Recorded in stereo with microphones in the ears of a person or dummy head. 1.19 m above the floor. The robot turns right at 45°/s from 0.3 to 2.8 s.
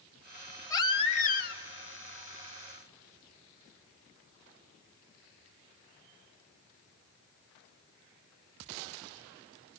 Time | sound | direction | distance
0.7 | a baby crying | 20° left | 1.3 m